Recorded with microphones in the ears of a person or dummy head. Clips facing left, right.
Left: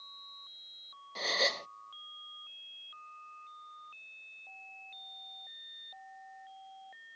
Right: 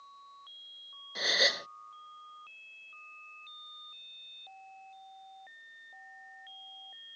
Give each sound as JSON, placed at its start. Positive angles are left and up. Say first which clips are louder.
{"t": 1.1, "sound": "a gasp", "louder": "right 1 dB", "side_deg": -15}